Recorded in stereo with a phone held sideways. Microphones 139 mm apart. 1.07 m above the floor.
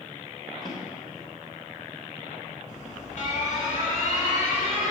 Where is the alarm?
55° left (ahead or behind), 2 m.